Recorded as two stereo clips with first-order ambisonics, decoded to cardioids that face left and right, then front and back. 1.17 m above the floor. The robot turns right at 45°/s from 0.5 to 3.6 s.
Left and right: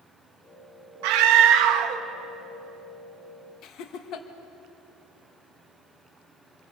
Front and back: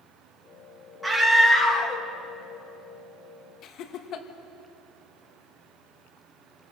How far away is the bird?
No bird in this recording.